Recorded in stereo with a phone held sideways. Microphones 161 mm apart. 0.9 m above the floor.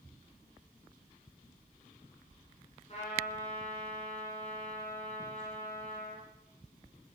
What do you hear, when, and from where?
2.9 s a trumpet: 40° left (ahead or behind), 7.5 m